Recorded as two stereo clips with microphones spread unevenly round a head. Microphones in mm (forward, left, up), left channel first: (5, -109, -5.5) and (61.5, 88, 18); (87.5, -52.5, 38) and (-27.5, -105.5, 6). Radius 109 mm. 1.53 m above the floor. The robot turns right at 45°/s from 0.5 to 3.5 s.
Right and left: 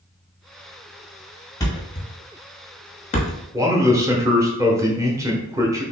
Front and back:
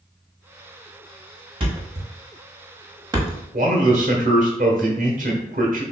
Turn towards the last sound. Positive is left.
turn(degrees=150)